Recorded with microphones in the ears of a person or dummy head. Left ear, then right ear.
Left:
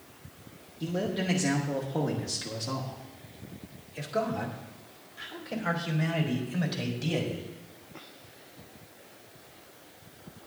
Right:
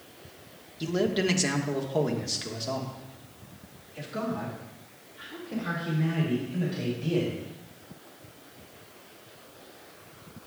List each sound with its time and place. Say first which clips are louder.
0.8 s a man speaking: right 5 dB; 40° right (ahead or behind), 1.7 m; by 7.4 s 35° left (ahead or behind), 3.5 m